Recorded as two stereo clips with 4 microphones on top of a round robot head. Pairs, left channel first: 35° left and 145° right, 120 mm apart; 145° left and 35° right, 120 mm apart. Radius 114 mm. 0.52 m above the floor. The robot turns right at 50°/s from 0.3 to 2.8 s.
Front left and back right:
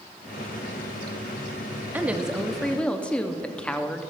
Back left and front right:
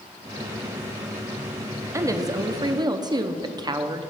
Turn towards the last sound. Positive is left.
turn(degrees=-35)